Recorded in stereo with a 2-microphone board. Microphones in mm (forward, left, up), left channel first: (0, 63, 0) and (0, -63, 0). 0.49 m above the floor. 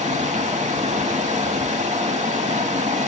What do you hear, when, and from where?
0.0 s running water: 65° right (ahead or behind), 0.7 m